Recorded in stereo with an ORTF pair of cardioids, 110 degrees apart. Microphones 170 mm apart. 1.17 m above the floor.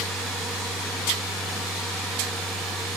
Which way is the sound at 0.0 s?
Straight ahead.